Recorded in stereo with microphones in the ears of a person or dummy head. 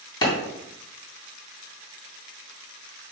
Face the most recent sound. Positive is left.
turn(degrees=20)  # may be behind; listen again after turning